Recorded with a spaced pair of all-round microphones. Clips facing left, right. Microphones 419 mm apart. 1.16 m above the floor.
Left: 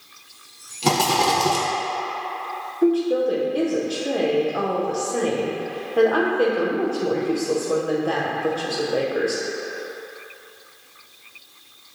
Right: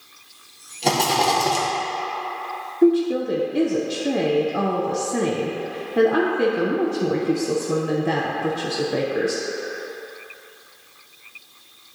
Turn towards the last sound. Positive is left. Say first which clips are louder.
# right 2 dB
turn(degrees=-40)  # may be behind; listen again after turning